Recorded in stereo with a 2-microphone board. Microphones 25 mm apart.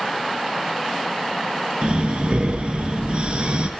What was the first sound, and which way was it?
Breathing, 50° right (ahead or behind).